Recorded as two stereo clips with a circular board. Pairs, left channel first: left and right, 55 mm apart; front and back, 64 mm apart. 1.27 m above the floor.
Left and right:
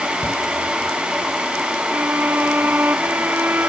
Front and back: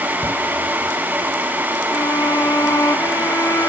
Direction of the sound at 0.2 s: 50° left.